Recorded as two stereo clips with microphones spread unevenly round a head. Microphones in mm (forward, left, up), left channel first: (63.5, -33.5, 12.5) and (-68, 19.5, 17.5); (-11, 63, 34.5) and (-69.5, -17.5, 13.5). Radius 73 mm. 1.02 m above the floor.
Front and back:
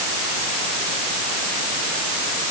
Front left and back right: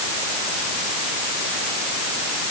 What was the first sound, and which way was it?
Only background noise.